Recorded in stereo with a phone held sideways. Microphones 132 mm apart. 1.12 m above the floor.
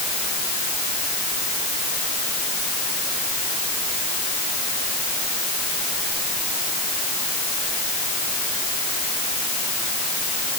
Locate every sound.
Only background noise.